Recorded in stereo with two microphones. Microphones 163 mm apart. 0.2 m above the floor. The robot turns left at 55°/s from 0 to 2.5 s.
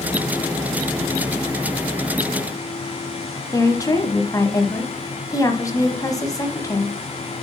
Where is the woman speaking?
20° left (ahead or behind), 1.0 m.